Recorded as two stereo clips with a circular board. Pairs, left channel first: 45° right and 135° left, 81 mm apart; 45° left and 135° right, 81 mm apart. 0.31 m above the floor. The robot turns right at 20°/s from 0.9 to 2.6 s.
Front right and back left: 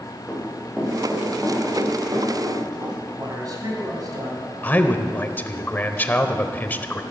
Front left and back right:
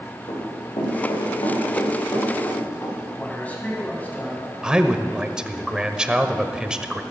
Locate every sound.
0.3 s running footsteps: 50° left, 6 m; by 3.0 s 100° left, 6.5 m
3.1 s a man speaking: 115° left, 2.5 m
4.6 s a man speaking: 70° right, 0.9 m